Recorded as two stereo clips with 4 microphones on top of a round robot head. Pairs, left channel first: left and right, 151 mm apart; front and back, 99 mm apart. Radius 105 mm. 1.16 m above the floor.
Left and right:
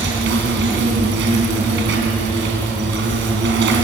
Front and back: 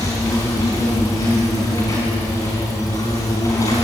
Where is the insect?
75° right, 4 m.